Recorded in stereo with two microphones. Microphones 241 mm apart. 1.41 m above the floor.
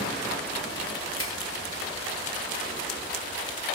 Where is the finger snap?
65° left (ahead or behind), 0.6 m.